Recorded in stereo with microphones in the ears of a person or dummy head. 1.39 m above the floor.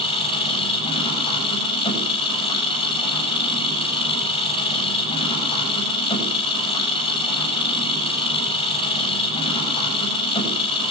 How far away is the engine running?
About 8.5 m.